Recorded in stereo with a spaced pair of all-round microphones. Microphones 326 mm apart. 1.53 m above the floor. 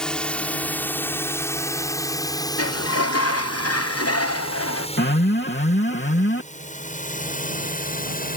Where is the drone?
Centre (ahead or behind); by 8.4 s 25° left (ahead or behind).